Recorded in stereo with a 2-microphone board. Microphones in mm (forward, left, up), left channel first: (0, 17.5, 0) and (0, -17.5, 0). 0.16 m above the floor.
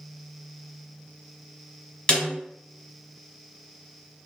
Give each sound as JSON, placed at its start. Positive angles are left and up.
{"t": 2.1, "sound": "a snare drum", "side_deg": 25, "distance_m": 1.3}